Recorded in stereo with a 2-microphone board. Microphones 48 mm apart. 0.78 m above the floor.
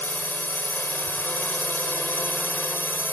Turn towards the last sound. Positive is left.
turn(degrees=45)  # may be behind; listen again after turning